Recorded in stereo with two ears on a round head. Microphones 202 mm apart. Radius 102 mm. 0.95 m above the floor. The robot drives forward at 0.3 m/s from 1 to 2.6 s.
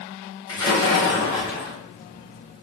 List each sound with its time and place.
0.5 s a splash: 20° left (ahead or behind), 1.5 m; by 1.8 s 15° left (ahead or behind), 1.8 m